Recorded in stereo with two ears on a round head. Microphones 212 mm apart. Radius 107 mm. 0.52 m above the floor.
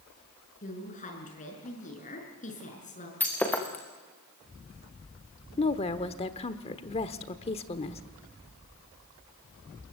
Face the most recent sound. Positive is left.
turn(degrees=25)  # may be behind; listen again after turning